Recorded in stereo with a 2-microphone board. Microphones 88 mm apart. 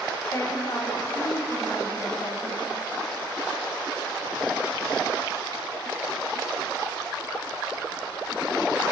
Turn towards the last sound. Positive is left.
turn(degrees=40)  # may be behind; listen again after turning